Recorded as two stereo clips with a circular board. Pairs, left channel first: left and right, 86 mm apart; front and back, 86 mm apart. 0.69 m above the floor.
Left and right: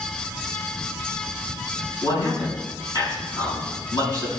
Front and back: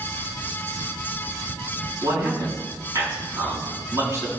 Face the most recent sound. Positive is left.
turn(degrees=125)